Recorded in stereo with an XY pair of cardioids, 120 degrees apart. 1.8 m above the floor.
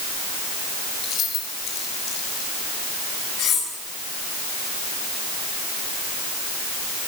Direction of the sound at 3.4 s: 65° left.